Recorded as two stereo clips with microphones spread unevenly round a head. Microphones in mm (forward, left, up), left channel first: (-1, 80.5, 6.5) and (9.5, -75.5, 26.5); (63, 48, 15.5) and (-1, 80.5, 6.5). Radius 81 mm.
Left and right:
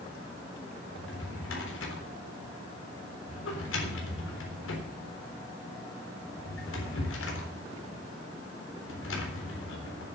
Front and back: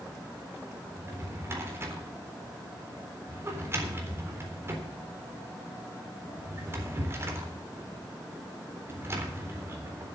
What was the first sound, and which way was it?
A drawer, 95° left.